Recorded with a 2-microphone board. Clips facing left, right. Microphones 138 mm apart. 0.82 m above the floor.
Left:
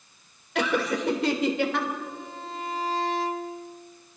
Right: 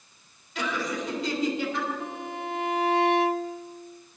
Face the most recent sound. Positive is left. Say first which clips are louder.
# right 3 dB
turn(degrees=-70)  # may be behind; listen again after turning